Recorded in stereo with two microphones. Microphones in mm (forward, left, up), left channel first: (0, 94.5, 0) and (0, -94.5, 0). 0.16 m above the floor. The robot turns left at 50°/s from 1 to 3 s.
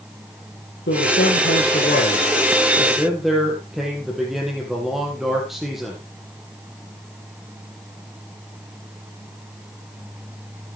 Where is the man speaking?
100° left, 5 m; by 6.0 s straight ahead, 5 m.